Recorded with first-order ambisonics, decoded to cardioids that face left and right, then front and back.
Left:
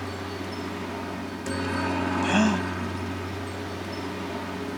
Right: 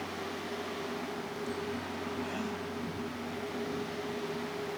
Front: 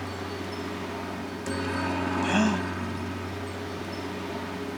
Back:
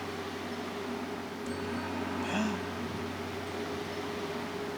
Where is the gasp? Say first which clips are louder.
Left 13 dB, front 9 dB; 60° left.